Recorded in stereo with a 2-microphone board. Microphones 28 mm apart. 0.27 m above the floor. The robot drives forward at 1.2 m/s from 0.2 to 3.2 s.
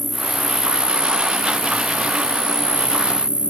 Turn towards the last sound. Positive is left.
turn(degrees=50)  # may be behind; listen again after turning